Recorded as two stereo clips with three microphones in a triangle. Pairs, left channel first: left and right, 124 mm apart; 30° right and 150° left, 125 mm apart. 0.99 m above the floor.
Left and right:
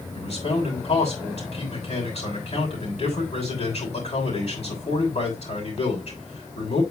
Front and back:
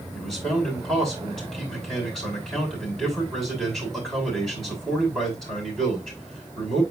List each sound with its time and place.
0.1 s a man speaking: 55° left, 6 m